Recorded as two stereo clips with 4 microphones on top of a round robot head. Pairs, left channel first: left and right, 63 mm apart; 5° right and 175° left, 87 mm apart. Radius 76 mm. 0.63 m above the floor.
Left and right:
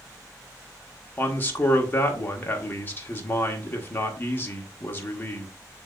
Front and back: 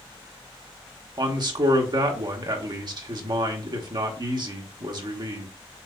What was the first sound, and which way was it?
A man speaking, 145° left.